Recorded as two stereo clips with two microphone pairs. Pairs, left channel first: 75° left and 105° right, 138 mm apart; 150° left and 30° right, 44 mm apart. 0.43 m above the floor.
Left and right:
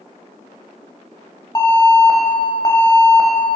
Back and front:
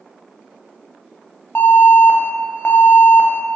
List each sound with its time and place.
1.6 s an alarm: 130° left, 1.4 m